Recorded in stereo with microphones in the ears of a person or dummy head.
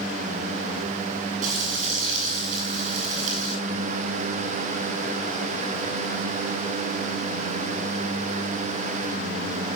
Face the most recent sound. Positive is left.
turn(degrees=-50)  # may be behind; listen again after turning